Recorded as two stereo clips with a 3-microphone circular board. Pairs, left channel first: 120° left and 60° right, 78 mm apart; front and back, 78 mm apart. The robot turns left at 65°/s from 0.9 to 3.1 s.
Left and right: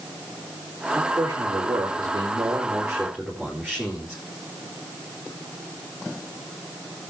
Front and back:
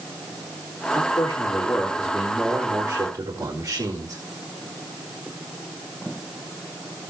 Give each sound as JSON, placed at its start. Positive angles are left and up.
{"t": 0.9, "sound": "a man speaking", "azimuth_deg": -10, "distance_m": 4.0}